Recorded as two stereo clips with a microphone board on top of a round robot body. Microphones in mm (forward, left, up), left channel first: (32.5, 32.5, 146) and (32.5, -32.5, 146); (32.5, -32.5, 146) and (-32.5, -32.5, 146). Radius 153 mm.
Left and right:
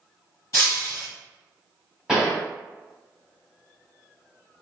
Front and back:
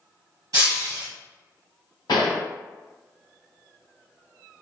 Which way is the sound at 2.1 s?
5° right.